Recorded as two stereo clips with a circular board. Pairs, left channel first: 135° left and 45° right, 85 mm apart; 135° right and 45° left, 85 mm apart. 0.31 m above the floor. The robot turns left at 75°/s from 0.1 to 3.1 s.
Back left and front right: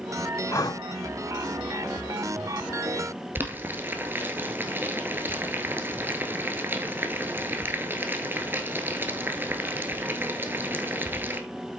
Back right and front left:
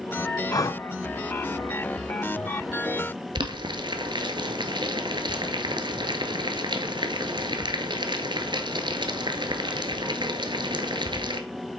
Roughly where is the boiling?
Ahead.